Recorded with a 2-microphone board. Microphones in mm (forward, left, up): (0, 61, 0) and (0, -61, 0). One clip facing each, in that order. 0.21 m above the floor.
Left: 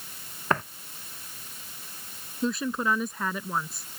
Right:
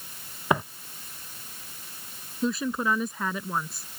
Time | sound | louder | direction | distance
0.5 | footsteps | right 2 dB | 10° right (ahead or behind) | ?
2.4 | a woman speaking | right 1 dB | centre (ahead or behind) | ?